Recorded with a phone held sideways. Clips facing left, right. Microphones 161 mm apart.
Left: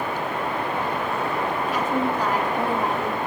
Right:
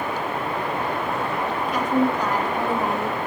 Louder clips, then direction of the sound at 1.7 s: Right 5 dB; 5° left (ahead or behind).